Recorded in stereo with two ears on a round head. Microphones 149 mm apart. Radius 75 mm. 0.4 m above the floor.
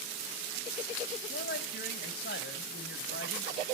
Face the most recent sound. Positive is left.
turn(degrees=65)  # may be behind; listen again after turning